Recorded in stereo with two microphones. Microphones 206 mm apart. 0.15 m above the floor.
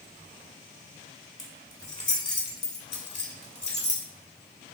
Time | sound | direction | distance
1.4 | keys jangling | 30° left (ahead or behind) | 0.8 m